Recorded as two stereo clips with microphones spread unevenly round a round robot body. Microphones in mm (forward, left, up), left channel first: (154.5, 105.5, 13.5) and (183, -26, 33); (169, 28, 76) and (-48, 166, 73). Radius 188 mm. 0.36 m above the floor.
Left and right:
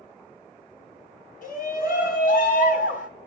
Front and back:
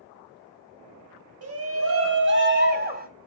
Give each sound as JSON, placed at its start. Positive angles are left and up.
{"t": 1.4, "sound": "a shout", "azimuth_deg": 120, "distance_m": 2.5}